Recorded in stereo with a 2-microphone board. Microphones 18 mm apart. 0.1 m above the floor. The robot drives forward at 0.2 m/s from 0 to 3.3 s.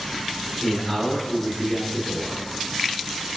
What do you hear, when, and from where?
0.6 s a man speaking: 30° left (ahead or behind), 1.3 m